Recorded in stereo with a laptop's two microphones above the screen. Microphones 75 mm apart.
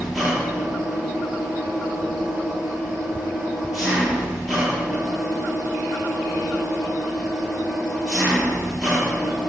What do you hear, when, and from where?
0.0 s an engine running: centre (ahead or behind), 9 m